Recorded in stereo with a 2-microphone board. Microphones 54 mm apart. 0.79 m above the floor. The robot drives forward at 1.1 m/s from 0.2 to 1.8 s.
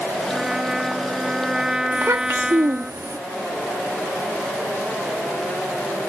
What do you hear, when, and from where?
0.3 s a trumpet: 10° right (ahead or behind)
1.9 s a child speaking: 65° right (ahead or behind)